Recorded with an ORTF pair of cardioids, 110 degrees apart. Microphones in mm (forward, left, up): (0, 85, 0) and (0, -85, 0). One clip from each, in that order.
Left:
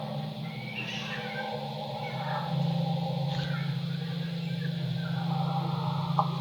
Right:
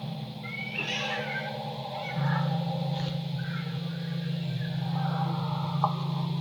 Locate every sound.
0.4 s a cat meowing: 55° right, 2.5 m; by 5.3 s 20° left, 3.5 m